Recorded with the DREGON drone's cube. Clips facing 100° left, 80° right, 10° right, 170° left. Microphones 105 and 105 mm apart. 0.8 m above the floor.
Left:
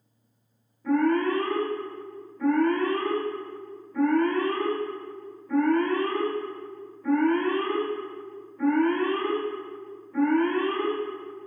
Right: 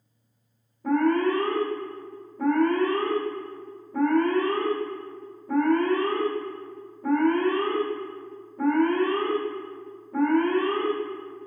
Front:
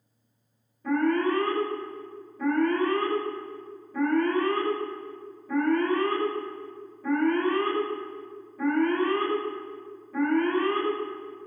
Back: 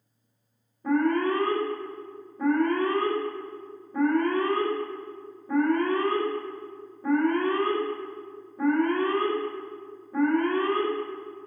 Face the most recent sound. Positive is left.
turn(degrees=-125)